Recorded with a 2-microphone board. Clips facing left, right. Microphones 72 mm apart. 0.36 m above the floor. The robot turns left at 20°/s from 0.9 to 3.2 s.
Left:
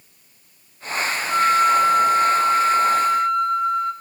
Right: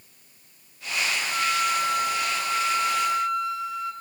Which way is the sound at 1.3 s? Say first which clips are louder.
Left 11 dB; 105° left.